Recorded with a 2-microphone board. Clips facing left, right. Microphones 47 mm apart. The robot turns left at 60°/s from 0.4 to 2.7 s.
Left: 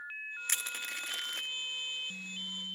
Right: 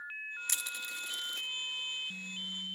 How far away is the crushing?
About 0.7 m.